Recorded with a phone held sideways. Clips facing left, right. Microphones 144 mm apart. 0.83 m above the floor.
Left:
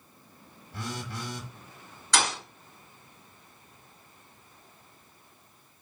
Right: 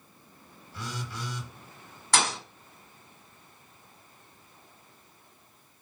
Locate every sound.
0.7 s a phone buzzing: 50° left (ahead or behind), 1.0 m
2.1 s a thud: 55° right (ahead or behind), 2.5 m